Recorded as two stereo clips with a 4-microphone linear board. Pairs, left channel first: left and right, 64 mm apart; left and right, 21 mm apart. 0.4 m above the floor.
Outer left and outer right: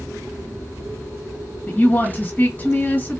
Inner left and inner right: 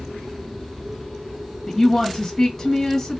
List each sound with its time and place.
1.7 s a woman speaking: 25° left (ahead or behind), 1.8 m